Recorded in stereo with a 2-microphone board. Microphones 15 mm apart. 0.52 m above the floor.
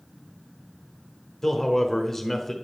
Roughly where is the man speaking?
Centre.